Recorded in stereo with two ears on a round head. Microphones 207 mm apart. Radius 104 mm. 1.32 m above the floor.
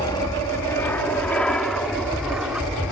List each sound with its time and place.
0.0 s an aircraft: 15° left (ahead or behind); by 2.9 s 5° right (ahead or behind)